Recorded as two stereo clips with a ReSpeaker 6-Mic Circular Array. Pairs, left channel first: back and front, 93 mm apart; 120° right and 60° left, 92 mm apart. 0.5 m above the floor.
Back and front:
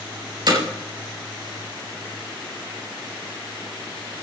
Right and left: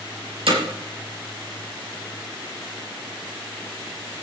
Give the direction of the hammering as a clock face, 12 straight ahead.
11 o'clock.